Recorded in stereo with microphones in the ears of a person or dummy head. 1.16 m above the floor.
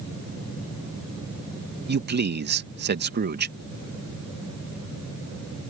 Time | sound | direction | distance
1.9 | a man speaking | 45° right (ahead or behind) | ?